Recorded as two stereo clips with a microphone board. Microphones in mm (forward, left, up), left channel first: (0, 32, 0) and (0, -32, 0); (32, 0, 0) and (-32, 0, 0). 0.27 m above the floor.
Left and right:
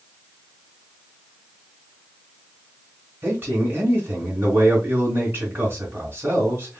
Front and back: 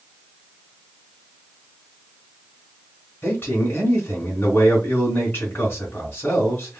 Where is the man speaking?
50° right, 1.7 m.